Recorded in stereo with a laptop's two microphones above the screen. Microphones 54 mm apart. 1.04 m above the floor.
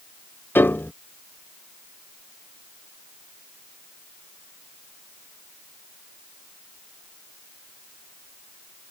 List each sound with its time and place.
0.6 s a piano: 40° left (ahead or behind)